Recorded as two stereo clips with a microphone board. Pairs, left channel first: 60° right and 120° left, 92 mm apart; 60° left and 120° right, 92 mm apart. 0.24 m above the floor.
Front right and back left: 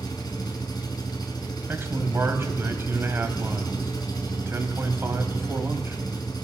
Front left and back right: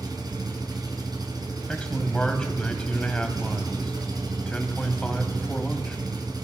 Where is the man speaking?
125° left, 1.3 m.